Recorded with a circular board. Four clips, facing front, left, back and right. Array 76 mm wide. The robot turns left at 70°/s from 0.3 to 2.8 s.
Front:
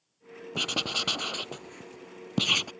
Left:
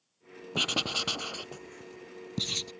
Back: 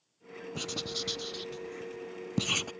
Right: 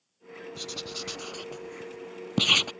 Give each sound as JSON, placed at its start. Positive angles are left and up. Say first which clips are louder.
{"t": 0.6, "sound": "writing", "louder": "left 9 dB, front 6 dB", "azimuth_deg": 65}